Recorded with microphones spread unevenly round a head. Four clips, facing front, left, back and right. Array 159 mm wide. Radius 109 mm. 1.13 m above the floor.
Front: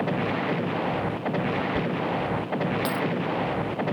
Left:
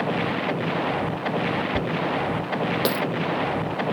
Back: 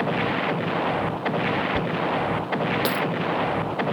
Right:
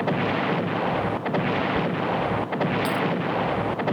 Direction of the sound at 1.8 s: 95° left.